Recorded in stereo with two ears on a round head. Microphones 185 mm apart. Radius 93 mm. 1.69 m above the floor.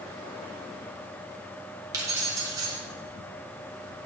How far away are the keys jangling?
About 1.4 m.